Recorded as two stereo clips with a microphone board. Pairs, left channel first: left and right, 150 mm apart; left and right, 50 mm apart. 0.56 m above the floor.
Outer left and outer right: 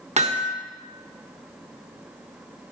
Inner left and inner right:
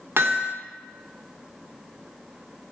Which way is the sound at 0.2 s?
50° right (ahead or behind).